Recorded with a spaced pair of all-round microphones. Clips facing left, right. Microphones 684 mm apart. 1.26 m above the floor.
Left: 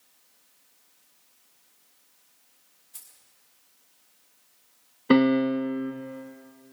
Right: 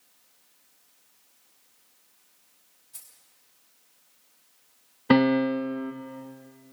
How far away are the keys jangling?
About 3.5 m.